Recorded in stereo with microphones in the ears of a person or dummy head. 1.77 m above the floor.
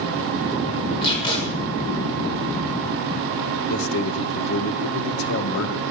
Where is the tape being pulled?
25° left (ahead or behind), 6 m.